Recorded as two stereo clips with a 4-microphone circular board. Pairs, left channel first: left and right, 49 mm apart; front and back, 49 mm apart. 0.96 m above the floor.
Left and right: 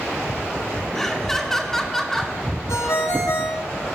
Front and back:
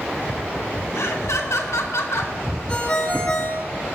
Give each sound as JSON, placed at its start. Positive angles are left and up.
{"t": 0.9, "sound": "laughter", "azimuth_deg": 10, "distance_m": 2.0}
{"t": 2.7, "sound": "a ringtone", "azimuth_deg": 70, "distance_m": 2.5}